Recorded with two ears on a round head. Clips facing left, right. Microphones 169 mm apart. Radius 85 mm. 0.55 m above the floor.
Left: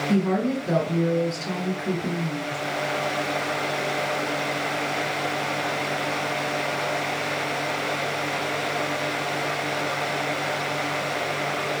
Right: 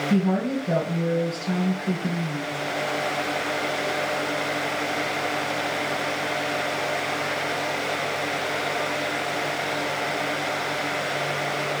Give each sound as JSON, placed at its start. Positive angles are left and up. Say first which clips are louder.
{"t": 0.1, "sound": "a woman speaking", "louder": "left 1 dB", "side_deg": 60, "distance_m": 3.0}